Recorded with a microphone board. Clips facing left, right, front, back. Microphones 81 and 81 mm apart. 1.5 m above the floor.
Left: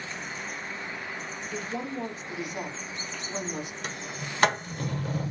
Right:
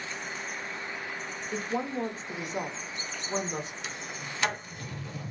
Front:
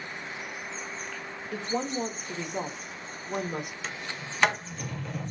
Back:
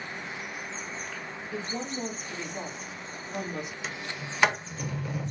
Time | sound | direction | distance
1.5 | a woman speaking | 30° right | 0.9 m
3.8 | a sliding door | 95° left | 0.6 m